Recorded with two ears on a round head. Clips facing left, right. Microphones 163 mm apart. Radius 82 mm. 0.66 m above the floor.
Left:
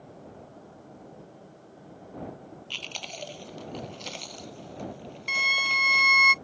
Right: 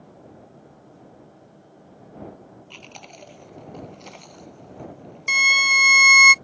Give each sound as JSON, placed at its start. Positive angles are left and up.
{"t": 2.7, "sound": "chewing", "side_deg": 40}
{"t": 5.3, "sound": "a violin", "side_deg": -55}